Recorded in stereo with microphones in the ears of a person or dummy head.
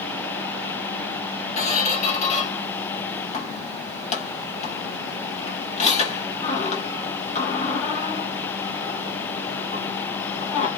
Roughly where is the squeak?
Left.